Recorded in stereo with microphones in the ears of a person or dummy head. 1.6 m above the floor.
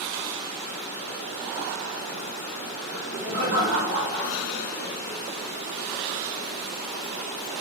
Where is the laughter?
85° right, 1.6 m; by 5.2 s 15° right (ahead or behind), 0.9 m.